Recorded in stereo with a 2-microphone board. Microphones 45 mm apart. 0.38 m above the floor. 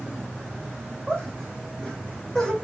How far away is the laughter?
About 1.9 m.